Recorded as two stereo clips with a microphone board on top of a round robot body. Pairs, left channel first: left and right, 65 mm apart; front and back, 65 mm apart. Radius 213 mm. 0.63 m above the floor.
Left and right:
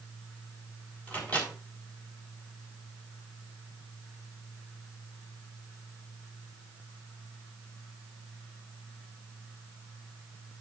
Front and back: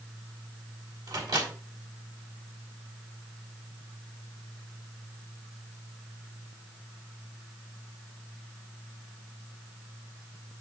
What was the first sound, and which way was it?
A microwave, 160° left.